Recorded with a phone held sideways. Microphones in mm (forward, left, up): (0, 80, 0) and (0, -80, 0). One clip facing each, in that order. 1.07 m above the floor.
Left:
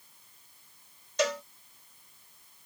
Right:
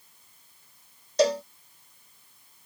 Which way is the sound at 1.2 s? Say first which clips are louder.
Right 7 dB; 35° right (ahead or behind).